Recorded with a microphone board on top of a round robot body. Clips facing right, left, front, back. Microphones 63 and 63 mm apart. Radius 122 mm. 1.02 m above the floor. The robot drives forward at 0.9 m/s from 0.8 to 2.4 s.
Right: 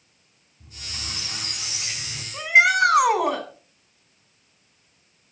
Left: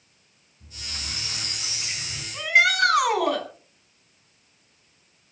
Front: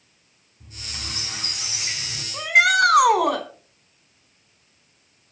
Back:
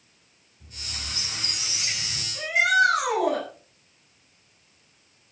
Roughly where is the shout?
Ahead right.